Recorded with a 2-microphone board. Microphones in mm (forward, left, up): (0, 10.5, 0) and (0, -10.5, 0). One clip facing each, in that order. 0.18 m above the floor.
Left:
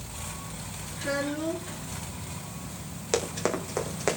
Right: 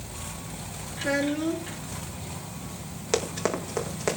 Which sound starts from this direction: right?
A child speaking, at 1.0 s.